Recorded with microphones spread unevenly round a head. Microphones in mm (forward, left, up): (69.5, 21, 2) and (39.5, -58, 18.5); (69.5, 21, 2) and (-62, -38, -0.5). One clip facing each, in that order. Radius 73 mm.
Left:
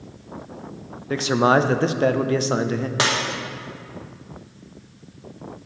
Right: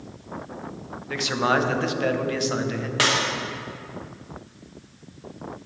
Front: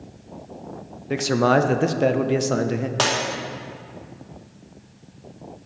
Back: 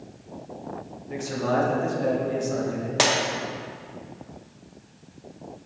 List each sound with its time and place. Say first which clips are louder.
1.1 s a man speaking: left 5 dB, front 7 dB; 15° left, 0.6 m
3.0 s breaking glass: even, back 3 dB; 140° left, 0.9 m